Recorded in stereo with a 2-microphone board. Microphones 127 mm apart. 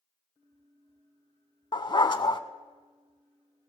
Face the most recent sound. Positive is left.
turn(degrees=40)  # may be behind; listen again after turning